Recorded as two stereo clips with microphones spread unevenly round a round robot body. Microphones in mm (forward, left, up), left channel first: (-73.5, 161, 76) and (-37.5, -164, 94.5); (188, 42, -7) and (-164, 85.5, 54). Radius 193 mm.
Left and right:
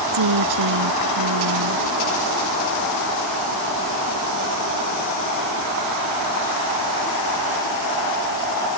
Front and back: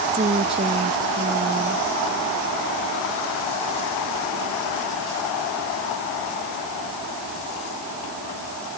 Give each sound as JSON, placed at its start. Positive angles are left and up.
{"t": 0.1, "sound": "a woman speaking", "azimuth_deg": -110}